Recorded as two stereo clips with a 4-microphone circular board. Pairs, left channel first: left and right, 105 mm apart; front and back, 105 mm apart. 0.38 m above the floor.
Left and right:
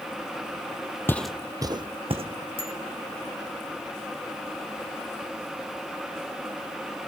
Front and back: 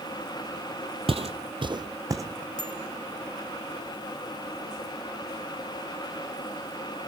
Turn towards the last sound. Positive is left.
turn(degrees=50)